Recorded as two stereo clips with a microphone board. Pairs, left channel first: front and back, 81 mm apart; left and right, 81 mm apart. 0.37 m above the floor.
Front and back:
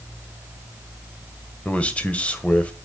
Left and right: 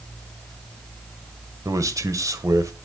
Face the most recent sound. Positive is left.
turn(degrees=-70)